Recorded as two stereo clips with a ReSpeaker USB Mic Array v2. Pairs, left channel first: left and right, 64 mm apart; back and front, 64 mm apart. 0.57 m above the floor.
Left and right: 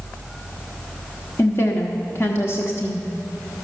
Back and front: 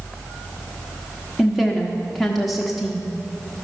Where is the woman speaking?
90° left, 0.9 m.